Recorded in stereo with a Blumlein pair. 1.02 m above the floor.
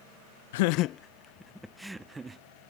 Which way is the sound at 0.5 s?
55° left.